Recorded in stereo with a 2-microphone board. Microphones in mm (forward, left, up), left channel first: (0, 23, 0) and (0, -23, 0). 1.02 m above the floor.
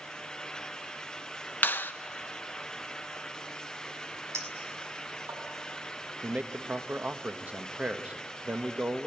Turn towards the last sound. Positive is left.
turn(degrees=-35)  # may be behind; listen again after turning